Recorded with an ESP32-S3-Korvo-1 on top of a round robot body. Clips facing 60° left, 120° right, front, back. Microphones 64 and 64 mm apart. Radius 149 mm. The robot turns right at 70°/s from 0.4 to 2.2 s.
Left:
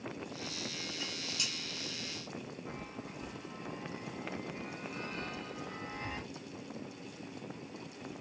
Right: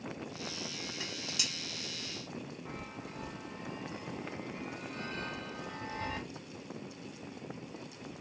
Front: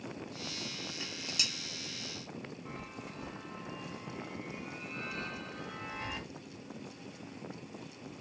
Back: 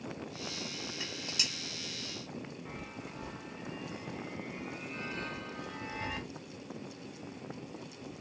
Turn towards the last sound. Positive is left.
turn(degrees=-95)